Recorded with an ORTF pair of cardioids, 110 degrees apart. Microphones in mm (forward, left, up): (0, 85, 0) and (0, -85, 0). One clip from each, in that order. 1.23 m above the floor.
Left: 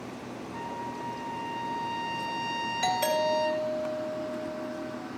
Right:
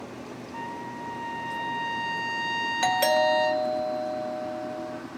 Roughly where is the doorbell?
Ahead right.